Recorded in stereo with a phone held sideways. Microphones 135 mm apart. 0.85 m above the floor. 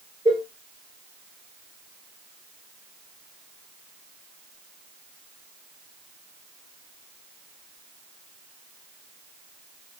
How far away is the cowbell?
About 0.5 m.